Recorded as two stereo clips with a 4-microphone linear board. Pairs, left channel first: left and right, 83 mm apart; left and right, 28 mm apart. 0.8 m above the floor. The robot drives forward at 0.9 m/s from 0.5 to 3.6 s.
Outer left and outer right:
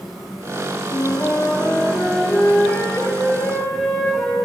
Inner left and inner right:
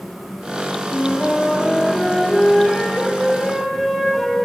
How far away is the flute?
About 0.6 m.